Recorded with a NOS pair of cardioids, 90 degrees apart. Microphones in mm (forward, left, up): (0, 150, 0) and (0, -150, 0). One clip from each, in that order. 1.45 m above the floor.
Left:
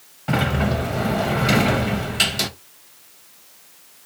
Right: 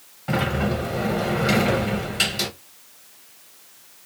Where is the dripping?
I don't hear dripping.